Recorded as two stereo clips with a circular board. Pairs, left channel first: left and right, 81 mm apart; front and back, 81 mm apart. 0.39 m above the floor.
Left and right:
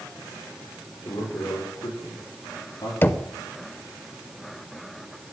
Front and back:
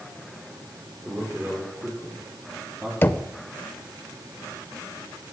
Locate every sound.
1.1 s a man speaking: 110° left, 7 m; by 2.9 s 120° left, 8 m
3.0 s knocking: 45° left, 0.6 m